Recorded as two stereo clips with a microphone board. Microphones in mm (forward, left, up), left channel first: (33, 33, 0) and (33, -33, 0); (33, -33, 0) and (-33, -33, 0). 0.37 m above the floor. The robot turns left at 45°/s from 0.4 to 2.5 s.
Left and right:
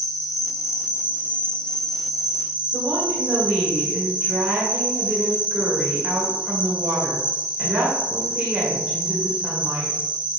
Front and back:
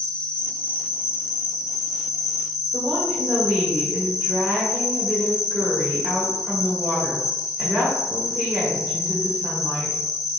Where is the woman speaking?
155° right, 1.5 m.